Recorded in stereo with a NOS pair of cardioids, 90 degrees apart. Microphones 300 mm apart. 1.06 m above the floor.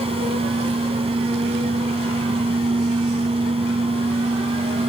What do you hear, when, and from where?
0.0 s a fan: 20° right